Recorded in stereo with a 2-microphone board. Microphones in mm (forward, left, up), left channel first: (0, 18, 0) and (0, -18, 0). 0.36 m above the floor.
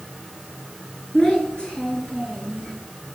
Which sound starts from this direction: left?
A child speaking, at 1.1 s.